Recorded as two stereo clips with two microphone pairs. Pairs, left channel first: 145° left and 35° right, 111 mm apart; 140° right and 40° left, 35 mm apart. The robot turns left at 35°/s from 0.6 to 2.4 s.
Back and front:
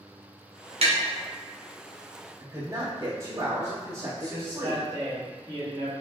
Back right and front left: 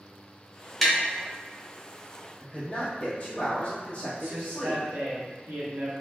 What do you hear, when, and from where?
0.8 s tapping: 55° right, 0.8 m; by 1.0 s 60° right, 0.8 m
2.4 s a man speaking: 95° right, 1.4 m
4.2 s a man speaking: 25° left, 1.3 m